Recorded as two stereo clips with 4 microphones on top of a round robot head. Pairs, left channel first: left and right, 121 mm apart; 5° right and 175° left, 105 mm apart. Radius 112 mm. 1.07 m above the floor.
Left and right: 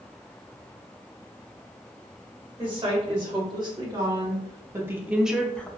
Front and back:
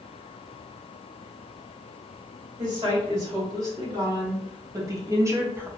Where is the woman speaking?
135° right, 1.8 m; by 5.7 s 145° left, 0.6 m.